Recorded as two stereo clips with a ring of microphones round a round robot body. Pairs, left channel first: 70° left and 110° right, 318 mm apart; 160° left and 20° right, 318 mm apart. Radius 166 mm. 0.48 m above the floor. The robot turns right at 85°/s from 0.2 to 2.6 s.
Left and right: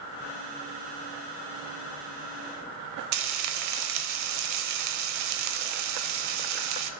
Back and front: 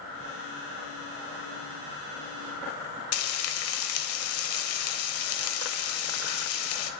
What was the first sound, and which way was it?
Frying, 155° right.